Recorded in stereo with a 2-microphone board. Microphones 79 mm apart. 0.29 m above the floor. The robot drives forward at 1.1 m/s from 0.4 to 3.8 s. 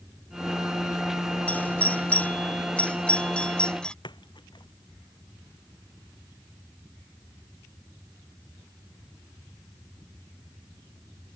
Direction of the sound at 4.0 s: 75° left (ahead or behind).